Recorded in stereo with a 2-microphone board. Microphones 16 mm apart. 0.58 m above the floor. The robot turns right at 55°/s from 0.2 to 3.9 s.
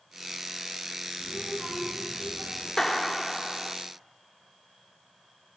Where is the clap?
135° left, 1.3 m; by 3.8 s 170° right, 1.3 m.